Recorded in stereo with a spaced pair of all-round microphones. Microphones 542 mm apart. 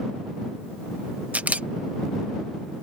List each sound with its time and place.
1.3 s a camera shutter: 5° right (ahead or behind)